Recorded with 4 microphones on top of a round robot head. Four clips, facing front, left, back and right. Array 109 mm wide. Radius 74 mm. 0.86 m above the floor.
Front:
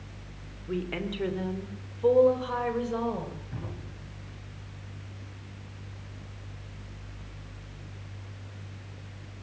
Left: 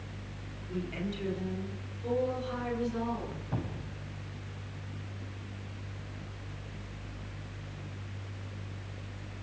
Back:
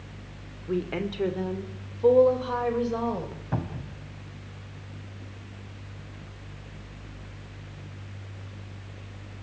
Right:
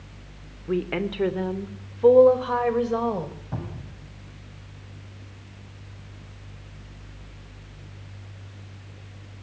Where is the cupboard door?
170° right, 3.5 m.